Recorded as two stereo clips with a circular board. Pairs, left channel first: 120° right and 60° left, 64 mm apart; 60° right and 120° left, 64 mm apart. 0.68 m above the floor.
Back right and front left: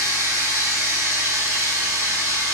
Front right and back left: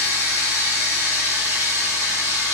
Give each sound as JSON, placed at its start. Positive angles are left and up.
{"t": 0.0, "sound": "running water", "azimuth_deg": 85, "distance_m": 1.2}